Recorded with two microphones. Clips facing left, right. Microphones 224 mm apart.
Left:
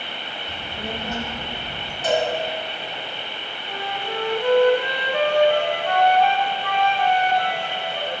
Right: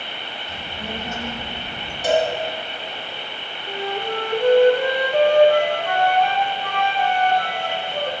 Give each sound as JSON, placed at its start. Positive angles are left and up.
{"t": 0.5, "sound": "a child speaking", "side_deg": 60, "distance_m": 1.3}
{"t": 2.0, "sound": "a cowbell", "side_deg": -15, "distance_m": 1.5}
{"t": 3.7, "sound": "a flute", "side_deg": -45, "distance_m": 0.9}